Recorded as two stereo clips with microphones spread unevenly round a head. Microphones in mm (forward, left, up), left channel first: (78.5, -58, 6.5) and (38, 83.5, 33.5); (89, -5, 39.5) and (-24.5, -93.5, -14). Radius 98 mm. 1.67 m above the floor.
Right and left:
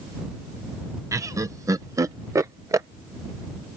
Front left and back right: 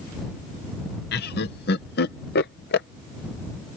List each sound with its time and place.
1.1 s laughter: 35° left